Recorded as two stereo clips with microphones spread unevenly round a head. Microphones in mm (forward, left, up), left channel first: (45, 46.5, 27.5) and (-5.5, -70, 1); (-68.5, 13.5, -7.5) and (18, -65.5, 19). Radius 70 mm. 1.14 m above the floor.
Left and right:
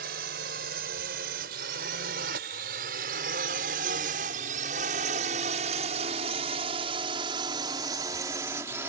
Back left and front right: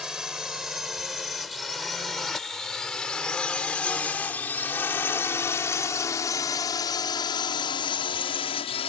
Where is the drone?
125° right; by 8.9 s 170° left.